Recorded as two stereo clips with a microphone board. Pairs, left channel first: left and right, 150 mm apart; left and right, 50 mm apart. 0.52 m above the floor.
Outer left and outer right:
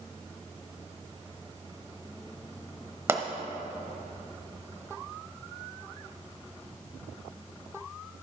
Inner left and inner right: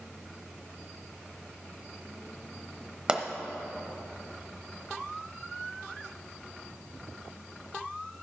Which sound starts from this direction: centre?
A pop, at 3.1 s.